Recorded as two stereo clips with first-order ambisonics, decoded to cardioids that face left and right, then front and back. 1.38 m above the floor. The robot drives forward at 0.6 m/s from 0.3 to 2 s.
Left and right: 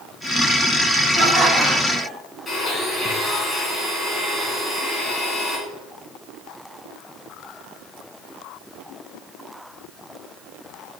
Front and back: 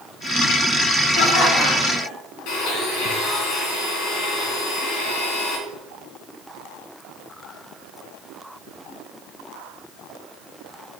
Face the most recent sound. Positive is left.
turn(degrees=15)